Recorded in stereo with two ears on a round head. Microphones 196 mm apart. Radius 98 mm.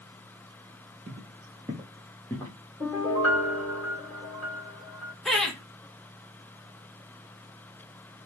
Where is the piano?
5° left (ahead or behind), 3 m.